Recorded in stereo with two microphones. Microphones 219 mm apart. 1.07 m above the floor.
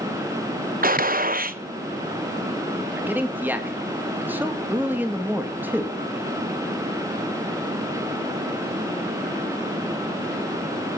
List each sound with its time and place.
0.8 s a gunshot: 40° right (ahead or behind), 0.8 m
3.0 s a man speaking: 10° right (ahead or behind), 1.9 m